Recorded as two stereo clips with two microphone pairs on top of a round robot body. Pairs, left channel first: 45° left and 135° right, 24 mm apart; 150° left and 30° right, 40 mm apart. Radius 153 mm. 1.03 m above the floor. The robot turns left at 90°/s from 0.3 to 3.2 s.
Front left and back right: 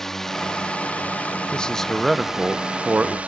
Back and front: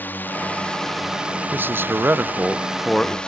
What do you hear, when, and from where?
0.0 s a drone: 120° left; by 3.3 s 145° right
1.5 s a man speaking: 5° right; by 3.2 s 155° right